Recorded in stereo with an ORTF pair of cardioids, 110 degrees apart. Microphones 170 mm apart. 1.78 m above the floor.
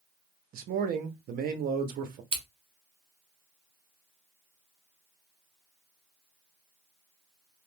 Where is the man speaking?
55° right, 0.7 m.